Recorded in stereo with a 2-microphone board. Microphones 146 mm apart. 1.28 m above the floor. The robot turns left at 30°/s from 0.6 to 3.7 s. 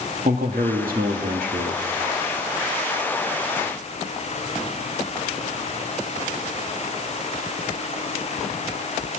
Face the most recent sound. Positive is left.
turn(degrees=-160)